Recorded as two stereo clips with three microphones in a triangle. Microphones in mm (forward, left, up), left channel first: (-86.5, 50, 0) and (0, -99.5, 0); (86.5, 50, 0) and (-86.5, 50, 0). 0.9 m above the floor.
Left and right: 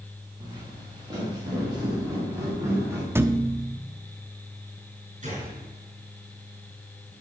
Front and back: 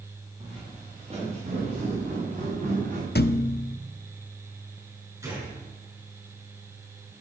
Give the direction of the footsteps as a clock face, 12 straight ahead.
4 o'clock.